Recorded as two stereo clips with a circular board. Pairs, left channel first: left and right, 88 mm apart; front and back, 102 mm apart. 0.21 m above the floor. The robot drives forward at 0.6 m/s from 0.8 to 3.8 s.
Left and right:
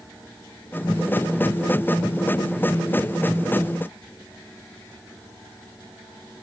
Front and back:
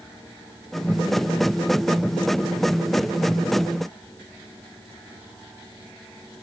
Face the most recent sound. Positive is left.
No sound to turn to.